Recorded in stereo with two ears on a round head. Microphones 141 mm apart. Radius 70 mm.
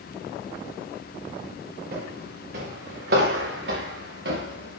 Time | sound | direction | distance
1.9 | footsteps | 60° right (ahead or behind) | 6.5 m